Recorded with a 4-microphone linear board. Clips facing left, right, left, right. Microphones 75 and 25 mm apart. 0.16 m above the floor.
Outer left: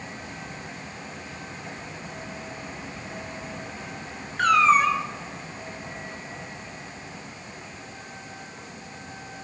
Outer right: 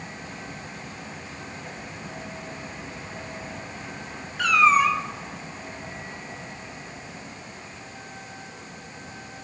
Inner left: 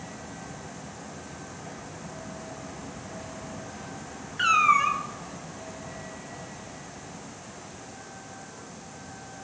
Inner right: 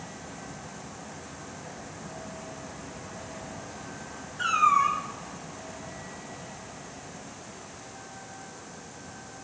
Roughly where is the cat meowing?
Left.